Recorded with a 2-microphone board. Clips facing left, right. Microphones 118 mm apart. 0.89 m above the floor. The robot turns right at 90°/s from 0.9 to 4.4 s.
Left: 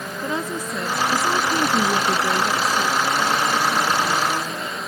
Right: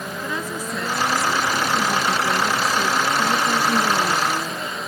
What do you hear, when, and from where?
0.2 s a woman speaking: 25° left; by 4.3 s 30° right